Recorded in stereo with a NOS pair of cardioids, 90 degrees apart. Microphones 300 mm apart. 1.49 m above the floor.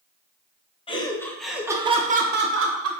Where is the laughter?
20° left, 0.9 m; by 2.9 s 50° right, 0.9 m.